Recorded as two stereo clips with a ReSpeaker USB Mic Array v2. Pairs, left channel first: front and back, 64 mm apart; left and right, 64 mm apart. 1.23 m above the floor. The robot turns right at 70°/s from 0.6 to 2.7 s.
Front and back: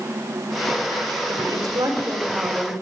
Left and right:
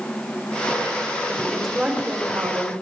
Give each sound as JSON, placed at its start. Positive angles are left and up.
{"t": 1.3, "sound": "a woman speaking", "azimuth_deg": 160, "distance_m": 4.0}